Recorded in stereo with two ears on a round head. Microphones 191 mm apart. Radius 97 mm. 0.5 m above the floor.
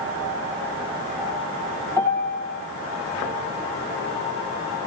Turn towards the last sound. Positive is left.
turn(degrees=-15)  # may be behind; listen again after turning